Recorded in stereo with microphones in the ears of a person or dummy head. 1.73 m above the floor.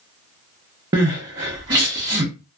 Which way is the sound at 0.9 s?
20° right (ahead or behind).